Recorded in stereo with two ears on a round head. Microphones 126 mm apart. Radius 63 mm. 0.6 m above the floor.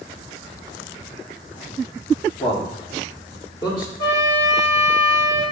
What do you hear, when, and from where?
2.4 s a man speaking: 40° left (ahead or behind), 1.5 m; by 3.9 s 30° left (ahead or behind), 2.5 m
4.0 s a trumpet: 30° left (ahead or behind), 2 m